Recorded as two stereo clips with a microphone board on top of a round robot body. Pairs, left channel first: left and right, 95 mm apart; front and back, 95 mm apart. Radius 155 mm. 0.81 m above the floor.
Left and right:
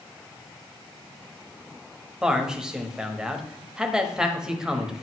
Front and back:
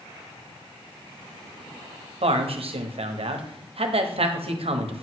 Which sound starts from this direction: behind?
A man speaking, at 2.2 s.